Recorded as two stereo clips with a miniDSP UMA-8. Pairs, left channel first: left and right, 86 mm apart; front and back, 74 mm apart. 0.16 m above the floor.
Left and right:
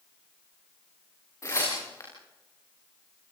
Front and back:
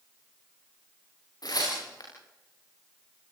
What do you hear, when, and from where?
1.4 s tearing paper: 35° left, 9.5 m